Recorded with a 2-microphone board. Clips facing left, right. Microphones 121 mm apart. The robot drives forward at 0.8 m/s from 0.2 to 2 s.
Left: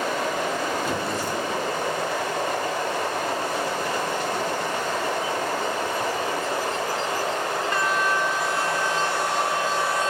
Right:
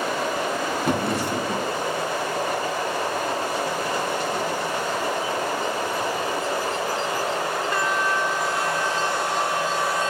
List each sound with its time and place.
0.8 s a drawer: 60° right (ahead or behind), 2.5 m; by 1.7 s 75° right (ahead or behind), 2 m